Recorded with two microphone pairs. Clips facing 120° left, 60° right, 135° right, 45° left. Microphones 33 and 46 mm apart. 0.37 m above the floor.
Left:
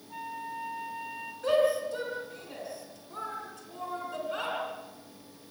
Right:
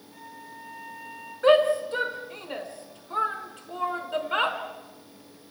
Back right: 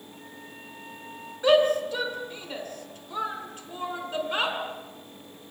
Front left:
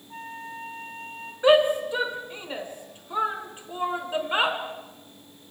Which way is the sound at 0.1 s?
70° left.